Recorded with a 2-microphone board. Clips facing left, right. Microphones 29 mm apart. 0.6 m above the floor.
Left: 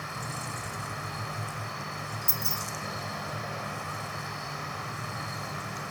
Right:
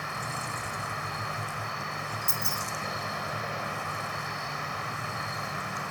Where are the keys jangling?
10° left (ahead or behind), 1.0 m.